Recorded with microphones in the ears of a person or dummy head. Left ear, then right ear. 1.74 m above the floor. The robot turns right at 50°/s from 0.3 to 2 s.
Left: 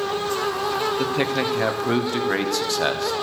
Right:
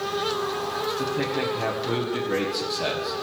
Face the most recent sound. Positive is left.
turn(degrees=125)